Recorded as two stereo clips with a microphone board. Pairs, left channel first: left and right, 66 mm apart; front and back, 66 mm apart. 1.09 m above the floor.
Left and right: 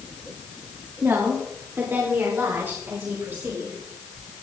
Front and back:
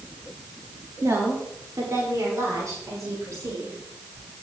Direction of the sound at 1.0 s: 140° right.